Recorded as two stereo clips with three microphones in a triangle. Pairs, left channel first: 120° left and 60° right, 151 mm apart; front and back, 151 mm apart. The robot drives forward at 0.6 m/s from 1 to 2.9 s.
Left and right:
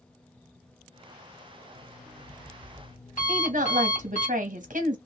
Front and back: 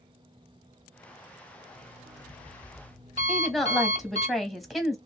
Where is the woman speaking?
90° right, 0.9 m.